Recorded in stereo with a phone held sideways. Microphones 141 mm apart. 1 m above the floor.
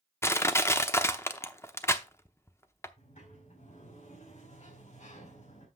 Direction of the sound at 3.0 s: 55° left (ahead or behind).